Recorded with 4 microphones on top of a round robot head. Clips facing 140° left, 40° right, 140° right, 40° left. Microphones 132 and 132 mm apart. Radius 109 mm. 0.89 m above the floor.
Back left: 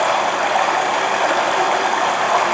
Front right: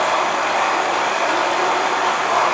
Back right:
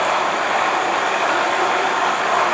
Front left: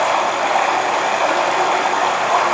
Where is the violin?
I don't hear a violin.